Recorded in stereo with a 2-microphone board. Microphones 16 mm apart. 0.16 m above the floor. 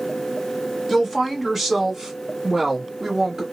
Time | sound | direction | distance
0.9 | a woman speaking | 15° right (ahead or behind) | 1.6 m